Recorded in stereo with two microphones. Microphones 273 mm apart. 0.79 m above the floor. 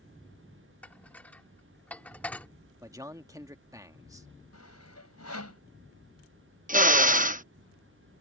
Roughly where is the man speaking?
Centre.